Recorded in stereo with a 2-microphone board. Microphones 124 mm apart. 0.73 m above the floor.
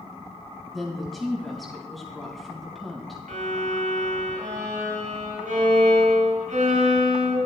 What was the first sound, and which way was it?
A woman speaking, centre (ahead or behind).